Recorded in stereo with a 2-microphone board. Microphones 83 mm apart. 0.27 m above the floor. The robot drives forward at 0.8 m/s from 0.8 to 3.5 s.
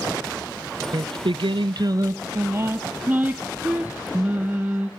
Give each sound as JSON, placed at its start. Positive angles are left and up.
{"t": 0.9, "sound": "singing", "side_deg": -55, "distance_m": 0.6}